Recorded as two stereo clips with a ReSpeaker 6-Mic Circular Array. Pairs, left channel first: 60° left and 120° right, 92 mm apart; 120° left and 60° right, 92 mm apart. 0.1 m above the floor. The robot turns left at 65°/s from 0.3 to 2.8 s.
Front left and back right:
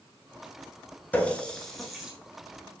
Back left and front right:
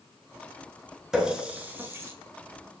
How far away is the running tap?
About 0.9 m.